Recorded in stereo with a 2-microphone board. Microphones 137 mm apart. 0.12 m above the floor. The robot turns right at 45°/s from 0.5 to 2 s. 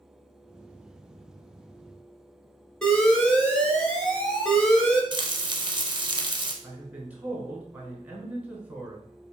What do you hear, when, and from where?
2.8 s an alarm: 5° left (ahead or behind), 1.1 m
5.1 s frying: 35° right (ahead or behind), 0.7 m
6.6 s a man speaking: 10° right (ahead or behind), 1.2 m